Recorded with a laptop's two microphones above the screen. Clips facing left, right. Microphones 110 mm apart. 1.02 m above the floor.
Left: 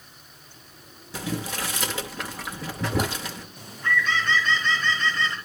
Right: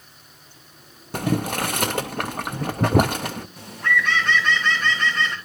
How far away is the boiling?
About 0.6 m.